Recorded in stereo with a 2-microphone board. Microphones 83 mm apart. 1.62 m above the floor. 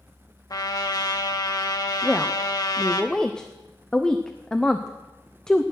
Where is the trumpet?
50° left (ahead or behind), 1.4 m.